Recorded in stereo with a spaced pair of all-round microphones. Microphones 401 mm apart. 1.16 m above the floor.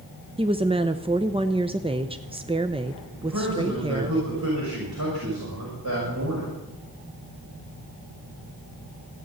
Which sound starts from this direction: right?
A man speaking, at 3.2 s.